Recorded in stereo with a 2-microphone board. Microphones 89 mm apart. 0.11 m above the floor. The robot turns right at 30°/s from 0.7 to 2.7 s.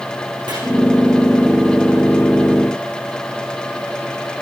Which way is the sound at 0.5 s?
60° right (ahead or behind).